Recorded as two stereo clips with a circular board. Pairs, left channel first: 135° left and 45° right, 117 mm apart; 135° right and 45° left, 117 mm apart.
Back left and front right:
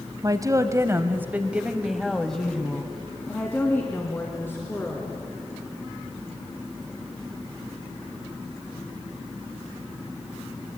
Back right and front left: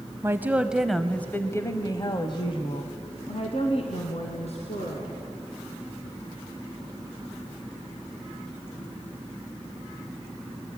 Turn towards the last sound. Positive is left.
turn(degrees=-155)